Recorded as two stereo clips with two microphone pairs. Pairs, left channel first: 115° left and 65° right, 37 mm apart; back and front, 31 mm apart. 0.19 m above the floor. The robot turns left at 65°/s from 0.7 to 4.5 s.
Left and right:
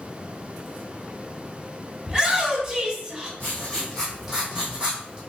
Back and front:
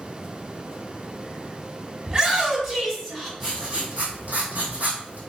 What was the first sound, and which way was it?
A shout, 55° right.